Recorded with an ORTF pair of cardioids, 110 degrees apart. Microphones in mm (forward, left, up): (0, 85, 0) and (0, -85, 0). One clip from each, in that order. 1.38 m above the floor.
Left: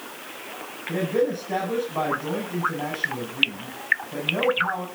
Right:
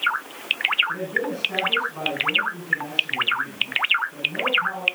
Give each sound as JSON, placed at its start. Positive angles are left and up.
{"t": 0.9, "sound": "a man speaking", "azimuth_deg": 40, "distance_m": 8.5}